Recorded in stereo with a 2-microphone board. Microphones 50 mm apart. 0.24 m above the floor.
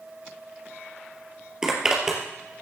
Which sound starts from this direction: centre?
A zipper, at 1.6 s.